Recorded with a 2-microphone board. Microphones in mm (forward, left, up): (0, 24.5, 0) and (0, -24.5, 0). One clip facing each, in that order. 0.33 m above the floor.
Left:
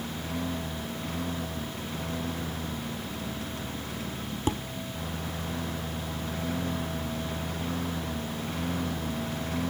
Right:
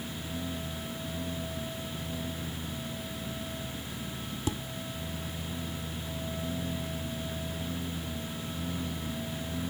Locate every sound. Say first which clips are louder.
0.0 s a lawn mower: left 4 dB; 90° left
4.5 s dishes clattering: left 5 dB; 40° left (ahead or behind)